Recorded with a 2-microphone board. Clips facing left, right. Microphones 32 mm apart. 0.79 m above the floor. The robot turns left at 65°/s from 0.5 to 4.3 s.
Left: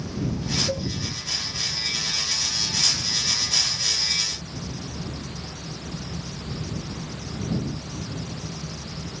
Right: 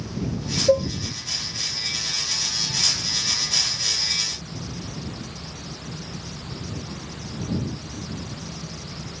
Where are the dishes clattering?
70° right (ahead or behind); by 0.9 s 55° right (ahead or behind).